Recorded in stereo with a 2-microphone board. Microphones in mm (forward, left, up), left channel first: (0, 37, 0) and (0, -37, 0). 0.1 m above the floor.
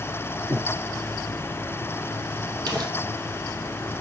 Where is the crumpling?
60° right (ahead or behind), 3.5 m.